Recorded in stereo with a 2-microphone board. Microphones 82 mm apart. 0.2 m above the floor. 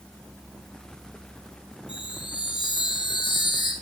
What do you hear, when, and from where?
1.9 s a chime: 75° left (ahead or behind), 3 m